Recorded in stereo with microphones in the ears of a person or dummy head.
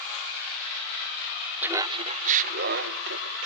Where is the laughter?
10° right (ahead or behind), 0.9 m; by 3.5 s 70° right (ahead or behind), 2.0 m.